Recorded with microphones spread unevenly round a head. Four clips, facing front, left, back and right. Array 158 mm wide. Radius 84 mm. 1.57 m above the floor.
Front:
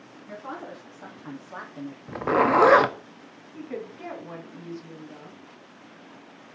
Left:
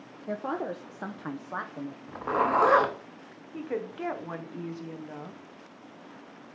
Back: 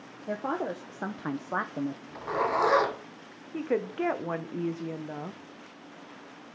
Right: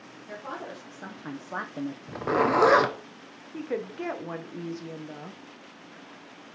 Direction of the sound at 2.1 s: 20° right.